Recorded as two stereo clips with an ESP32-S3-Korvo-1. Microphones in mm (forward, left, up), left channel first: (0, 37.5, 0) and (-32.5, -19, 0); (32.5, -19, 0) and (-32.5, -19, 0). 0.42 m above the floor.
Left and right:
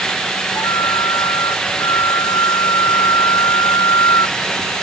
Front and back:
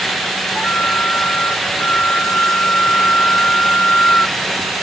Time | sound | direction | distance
0.6 | a flute | 65° left | ?